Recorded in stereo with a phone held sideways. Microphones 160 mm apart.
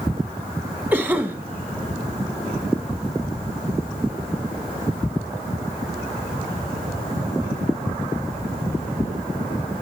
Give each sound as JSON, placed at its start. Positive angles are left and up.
{"t": 0.9, "sound": "a cough", "side_deg": -10, "distance_m": 1.6}